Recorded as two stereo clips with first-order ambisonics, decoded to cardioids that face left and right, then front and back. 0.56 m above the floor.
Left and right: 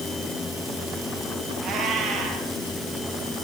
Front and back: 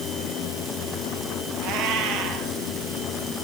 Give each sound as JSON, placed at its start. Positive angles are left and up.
{"t": 1.6, "sound": "a cat meowing", "azimuth_deg": -150, "distance_m": 5.5}